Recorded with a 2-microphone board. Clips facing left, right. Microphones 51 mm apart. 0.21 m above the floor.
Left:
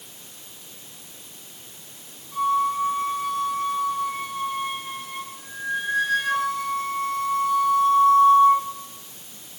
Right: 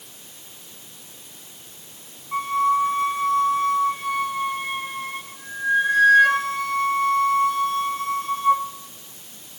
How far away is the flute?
About 2 m.